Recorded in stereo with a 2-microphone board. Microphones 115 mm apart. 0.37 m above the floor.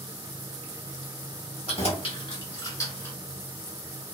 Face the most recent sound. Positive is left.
turn(degrees=20)  # may be behind; listen again after turning